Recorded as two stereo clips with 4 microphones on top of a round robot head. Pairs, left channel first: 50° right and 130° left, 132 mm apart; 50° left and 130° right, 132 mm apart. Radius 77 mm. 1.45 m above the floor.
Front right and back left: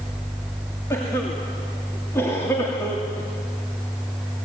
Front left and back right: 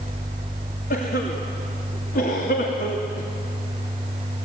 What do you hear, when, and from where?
0.9 s a cough: 25° left, 3 m